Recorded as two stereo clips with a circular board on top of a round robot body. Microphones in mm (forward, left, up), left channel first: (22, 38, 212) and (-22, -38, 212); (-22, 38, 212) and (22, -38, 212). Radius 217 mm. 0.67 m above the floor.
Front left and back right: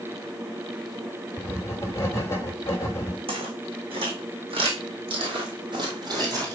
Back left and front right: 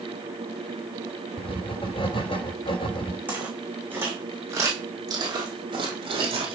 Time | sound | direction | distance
1.4 | writing | 120° left | 2.5 m
3.3 | footsteps | 135° right | 2.5 m